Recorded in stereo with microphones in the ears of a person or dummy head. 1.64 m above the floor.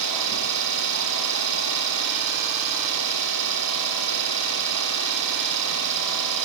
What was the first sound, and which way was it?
An engine running, 65° right (ahead or behind).